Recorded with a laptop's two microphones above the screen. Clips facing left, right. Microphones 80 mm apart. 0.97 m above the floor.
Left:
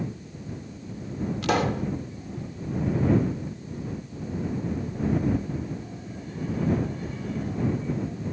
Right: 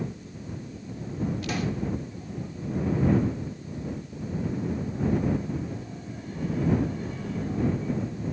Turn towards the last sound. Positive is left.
turn(degrees=75)  # may be behind; listen again after turning